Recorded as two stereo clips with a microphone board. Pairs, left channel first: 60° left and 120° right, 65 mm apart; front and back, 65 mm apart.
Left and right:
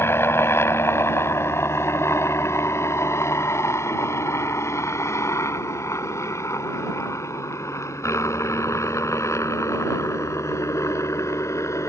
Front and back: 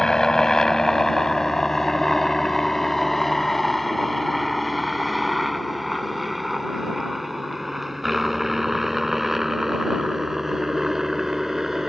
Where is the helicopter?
75° left; by 11.9 s 95° left.